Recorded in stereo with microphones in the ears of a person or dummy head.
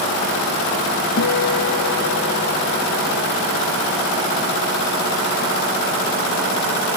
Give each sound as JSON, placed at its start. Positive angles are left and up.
{"t": 1.2, "sound": "a guitar", "side_deg": 70}